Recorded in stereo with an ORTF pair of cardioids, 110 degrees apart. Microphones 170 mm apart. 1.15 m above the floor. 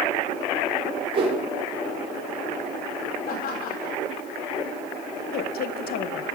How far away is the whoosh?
About 3.5 m.